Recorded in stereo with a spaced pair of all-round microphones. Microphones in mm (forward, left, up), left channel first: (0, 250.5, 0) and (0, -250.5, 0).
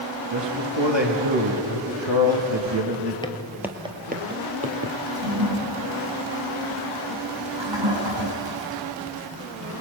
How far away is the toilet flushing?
About 5 m.